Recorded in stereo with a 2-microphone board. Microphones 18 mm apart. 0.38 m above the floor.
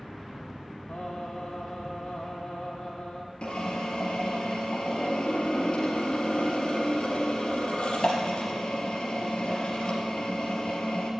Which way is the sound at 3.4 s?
65° left (ahead or behind).